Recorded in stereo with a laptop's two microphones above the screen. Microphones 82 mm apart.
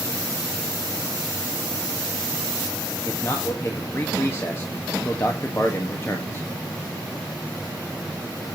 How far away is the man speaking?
About 1.6 m.